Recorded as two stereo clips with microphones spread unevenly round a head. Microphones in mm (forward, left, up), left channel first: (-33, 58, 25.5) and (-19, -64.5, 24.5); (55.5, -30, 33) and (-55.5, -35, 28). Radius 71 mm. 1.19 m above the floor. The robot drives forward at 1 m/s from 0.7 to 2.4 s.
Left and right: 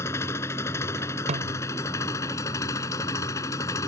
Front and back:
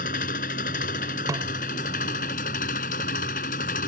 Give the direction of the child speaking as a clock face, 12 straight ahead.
I don't hear a child speaking.